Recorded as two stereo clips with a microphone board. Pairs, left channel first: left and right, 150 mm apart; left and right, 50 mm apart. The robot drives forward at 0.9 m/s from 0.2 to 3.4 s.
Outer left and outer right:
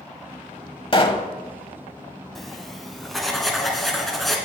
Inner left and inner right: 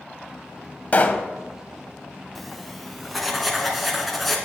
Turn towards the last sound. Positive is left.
turn(degrees=0)  # may be behind; listen again after turning